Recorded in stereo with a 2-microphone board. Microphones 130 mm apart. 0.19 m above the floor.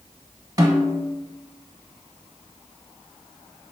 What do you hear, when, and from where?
0.6 s a snare drum: 30° right (ahead or behind), 0.7 m